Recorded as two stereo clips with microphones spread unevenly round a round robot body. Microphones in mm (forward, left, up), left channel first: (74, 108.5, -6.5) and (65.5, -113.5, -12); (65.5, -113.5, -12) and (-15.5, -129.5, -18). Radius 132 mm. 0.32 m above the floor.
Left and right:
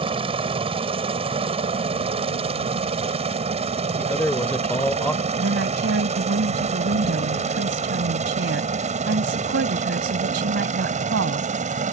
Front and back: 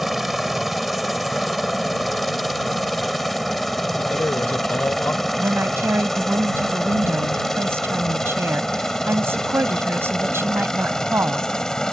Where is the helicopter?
85° right; by 11.9 s 65° right.